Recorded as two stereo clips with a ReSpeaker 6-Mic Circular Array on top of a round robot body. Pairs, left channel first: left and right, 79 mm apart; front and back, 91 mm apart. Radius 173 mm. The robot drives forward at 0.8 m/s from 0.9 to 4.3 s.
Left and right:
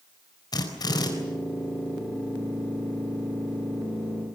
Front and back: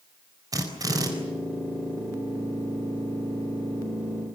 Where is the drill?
130° left, 4 m.